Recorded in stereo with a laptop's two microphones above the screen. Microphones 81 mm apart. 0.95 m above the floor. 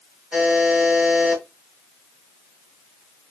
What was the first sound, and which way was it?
A buzzer, 10° right (ahead or behind).